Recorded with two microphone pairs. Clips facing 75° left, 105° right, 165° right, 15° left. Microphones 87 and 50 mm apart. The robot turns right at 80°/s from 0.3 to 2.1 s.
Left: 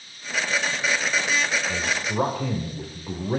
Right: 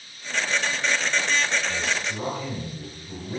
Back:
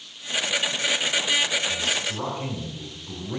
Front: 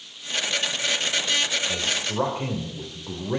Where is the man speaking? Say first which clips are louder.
Left 1 dB, even; 20° left, 2.5 m; by 3.4 s 55° left, 2.5 m.